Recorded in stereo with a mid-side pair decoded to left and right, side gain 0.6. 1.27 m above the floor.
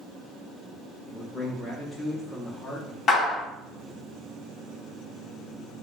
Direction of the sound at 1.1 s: 10° left.